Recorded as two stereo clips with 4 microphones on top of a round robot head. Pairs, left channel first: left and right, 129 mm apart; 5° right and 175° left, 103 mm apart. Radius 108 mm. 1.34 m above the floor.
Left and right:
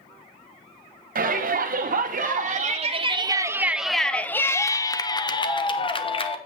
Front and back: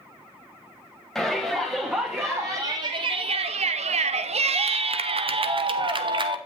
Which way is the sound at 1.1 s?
95° right.